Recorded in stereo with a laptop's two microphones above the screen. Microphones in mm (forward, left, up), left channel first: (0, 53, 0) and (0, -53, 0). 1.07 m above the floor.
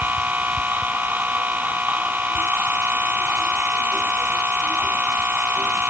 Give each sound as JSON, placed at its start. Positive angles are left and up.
{"t": 0.0, "sound": "a machine running", "side_deg": -15}